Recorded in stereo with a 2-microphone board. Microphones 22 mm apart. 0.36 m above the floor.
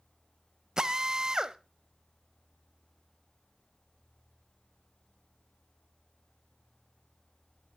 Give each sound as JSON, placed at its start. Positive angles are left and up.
{"t": 0.8, "sound": "a drill", "side_deg": -35, "distance_m": 0.6}